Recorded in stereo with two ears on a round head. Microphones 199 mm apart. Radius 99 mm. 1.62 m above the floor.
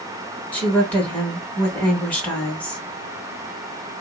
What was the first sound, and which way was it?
A woman speaking, 5° left (ahead or behind).